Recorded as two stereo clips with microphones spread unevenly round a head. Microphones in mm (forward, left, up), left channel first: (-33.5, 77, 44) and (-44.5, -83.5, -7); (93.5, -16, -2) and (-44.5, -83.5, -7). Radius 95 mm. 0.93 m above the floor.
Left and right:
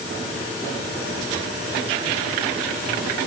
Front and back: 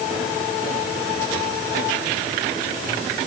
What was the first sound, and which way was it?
Only background noise.